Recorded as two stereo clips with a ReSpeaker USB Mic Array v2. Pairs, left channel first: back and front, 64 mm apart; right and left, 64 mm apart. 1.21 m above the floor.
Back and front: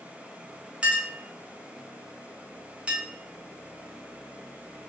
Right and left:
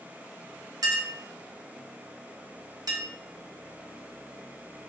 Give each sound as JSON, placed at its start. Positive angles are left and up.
{"t": 0.8, "sound": "a clink", "azimuth_deg": 70, "distance_m": 1.0}